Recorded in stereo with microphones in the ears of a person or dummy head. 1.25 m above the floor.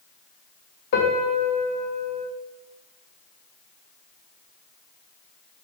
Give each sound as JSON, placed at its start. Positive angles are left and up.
{"t": 0.9, "sound": "a piano", "side_deg": 55, "distance_m": 1.6}